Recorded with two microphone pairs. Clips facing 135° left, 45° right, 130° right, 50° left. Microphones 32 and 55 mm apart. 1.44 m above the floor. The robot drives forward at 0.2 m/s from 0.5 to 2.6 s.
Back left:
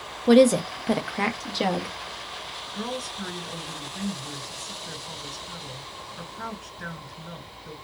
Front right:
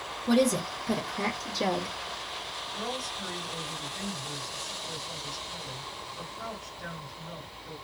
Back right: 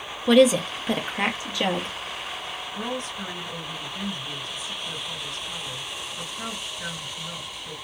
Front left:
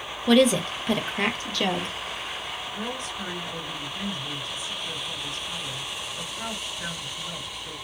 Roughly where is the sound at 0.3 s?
Behind left.